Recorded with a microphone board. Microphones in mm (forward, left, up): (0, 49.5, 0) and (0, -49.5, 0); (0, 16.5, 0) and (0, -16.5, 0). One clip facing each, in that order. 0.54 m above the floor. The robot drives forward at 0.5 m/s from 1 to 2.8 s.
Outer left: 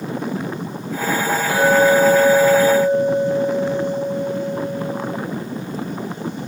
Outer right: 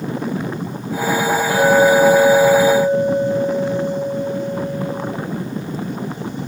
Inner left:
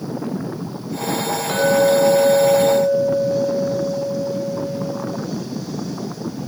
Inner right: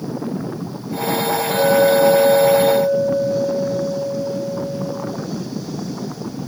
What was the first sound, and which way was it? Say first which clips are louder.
A clink: outer right 1 dB, inner right 1 dB; 65° left (ahead or behind).